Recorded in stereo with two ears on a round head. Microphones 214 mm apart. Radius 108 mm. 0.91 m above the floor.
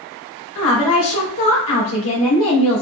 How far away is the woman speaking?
About 1.3 m.